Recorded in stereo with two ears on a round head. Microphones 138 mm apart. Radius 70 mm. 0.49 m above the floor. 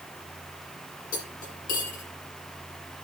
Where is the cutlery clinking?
55° left (ahead or behind), 8 m.